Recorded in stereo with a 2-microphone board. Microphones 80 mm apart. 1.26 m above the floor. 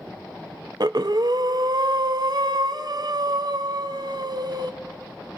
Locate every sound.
0.8 s breathing: 55° right (ahead or behind), 0.5 m